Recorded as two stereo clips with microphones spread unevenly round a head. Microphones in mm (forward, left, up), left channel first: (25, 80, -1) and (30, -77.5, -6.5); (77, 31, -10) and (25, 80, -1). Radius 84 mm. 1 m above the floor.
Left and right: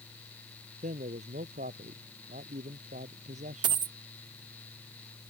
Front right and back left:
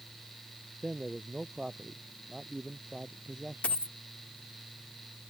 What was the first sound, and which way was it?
A man speaking, 140° right.